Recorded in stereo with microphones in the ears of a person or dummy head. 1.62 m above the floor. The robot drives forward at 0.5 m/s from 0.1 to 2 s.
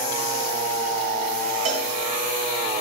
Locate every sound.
1.6 s a cowbell: 45° right (ahead or behind), 1.7 m